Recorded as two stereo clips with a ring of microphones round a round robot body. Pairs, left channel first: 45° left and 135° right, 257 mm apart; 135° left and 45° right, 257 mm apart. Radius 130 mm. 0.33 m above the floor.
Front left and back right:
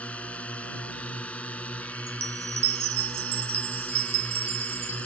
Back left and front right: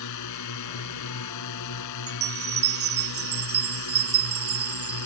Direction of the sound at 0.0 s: 130° left.